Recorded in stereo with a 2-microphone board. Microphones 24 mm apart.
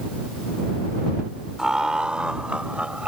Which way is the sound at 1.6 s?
30° right (ahead or behind).